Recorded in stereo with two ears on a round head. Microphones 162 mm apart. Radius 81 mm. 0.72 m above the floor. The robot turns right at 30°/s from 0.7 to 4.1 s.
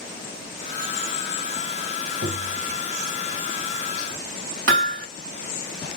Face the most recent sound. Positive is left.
turn(degrees=-70)  # may be behind; listen again after turning